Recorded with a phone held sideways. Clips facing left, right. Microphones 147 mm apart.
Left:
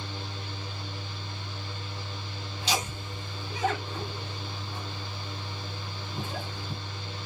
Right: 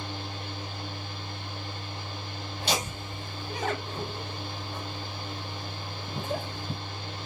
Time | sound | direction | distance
0.0 | a fan | 60° right (ahead or behind) | 2 m
2.6 | laughter | 70° right (ahead or behind) | 3 m